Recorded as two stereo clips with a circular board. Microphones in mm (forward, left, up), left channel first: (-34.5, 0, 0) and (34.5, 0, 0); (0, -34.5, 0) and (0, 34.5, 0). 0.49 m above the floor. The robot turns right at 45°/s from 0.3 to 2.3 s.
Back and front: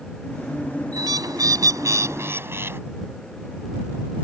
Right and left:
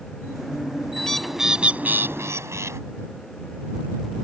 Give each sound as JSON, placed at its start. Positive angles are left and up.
{"t": 1.0, "sound": "a bird", "azimuth_deg": -10}